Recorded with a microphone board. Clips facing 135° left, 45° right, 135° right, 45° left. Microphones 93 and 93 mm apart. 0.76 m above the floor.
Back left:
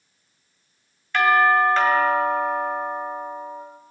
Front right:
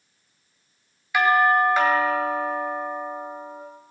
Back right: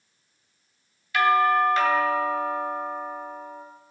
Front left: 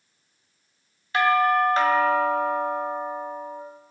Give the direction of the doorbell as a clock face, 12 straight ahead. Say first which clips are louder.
Back left 1 dB, even; 11 o'clock.